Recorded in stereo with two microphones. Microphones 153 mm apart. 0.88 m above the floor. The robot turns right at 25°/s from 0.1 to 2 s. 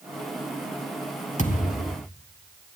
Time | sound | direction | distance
1.4 | a thud | 50° left (ahead or behind) | 4 m